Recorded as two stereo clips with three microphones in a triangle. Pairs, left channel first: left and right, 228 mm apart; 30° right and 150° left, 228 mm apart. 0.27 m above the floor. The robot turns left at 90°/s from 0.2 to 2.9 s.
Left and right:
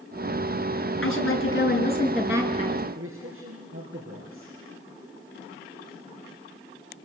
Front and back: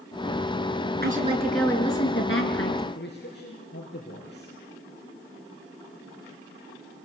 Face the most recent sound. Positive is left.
turn(degrees=-70)